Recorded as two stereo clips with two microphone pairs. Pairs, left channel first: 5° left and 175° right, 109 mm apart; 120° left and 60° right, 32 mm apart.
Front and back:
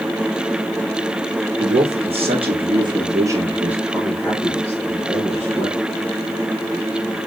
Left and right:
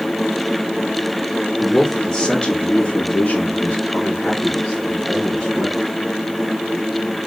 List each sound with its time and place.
1.6 s a man speaking: 175° right, 1.1 m; by 5.8 s 65° left, 1.4 m